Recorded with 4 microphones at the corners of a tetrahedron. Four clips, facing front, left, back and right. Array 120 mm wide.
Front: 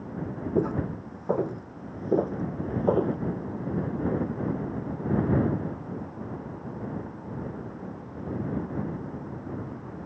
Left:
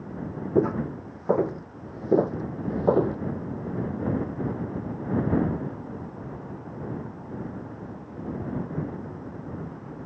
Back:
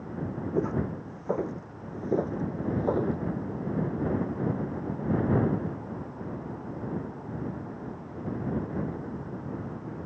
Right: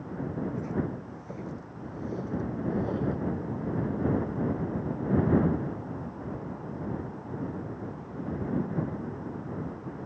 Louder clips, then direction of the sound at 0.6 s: Left 8 dB, front 2 dB; 80° left.